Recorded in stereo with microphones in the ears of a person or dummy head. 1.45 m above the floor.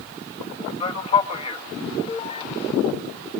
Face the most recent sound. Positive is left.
turn(degrees=30)  # may be behind; listen again after turning